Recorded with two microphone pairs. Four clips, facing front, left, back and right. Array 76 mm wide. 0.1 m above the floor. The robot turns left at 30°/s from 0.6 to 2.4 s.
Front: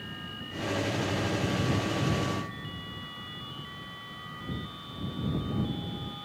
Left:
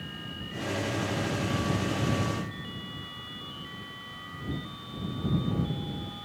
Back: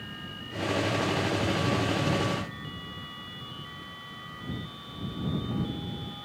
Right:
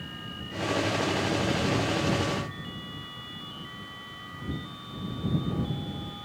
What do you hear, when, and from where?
Only background noise.